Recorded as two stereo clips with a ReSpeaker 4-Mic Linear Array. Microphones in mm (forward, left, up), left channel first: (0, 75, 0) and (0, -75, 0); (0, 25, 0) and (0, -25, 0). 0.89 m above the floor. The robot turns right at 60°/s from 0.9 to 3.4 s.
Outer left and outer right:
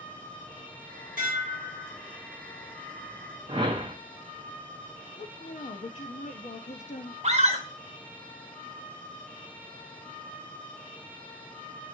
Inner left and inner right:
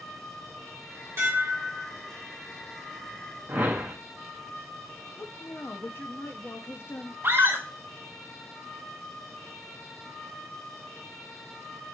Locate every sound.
1.2 s dishes clattering: 115° right, 1.6 m; by 1.9 s 70° right, 1.6 m
3.5 s a whoosh: 35° right (ahead or behind), 0.6 m
5.2 s a woman speaking: 50° left (ahead or behind), 0.6 m
7.2 s a scream: 45° right (ahead or behind), 0.9 m